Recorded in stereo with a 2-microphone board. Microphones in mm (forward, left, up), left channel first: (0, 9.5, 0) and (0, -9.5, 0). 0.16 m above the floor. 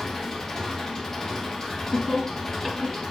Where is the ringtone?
No ringtone in this recording.